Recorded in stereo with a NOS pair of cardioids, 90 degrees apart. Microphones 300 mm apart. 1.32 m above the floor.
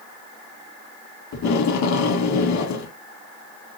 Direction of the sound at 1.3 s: 65° left.